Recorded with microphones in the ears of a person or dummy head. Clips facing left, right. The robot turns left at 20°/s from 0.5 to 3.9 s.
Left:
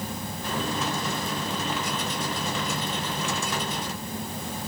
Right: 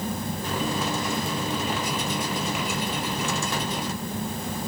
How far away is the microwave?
I don't hear a microwave.